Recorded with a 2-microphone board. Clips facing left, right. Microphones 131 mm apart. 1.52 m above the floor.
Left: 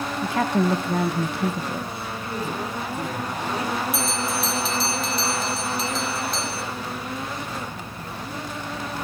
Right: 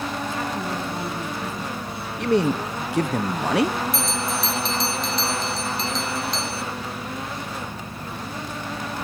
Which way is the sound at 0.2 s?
70° left (ahead or behind).